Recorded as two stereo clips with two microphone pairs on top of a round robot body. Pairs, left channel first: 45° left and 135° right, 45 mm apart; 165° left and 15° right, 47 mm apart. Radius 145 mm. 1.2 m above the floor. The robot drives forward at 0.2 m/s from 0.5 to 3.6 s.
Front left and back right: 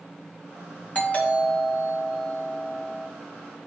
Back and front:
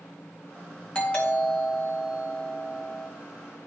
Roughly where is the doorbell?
Left.